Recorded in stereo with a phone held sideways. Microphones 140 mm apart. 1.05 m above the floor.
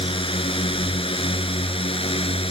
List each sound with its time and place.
0.0 s a drone: 40° left (ahead or behind)